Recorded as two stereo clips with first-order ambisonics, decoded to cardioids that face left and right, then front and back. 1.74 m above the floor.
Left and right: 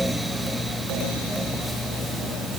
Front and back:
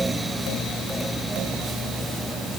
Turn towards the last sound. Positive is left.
No sound to turn to.